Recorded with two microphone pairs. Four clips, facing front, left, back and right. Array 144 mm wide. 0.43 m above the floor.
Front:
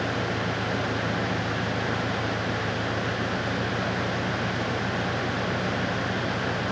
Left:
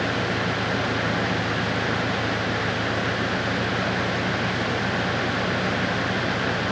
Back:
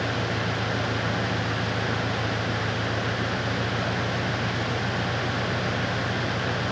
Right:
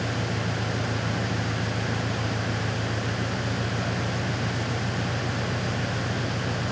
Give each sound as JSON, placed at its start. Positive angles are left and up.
{"t": 0.0, "sound": "an engine running", "azimuth_deg": -60}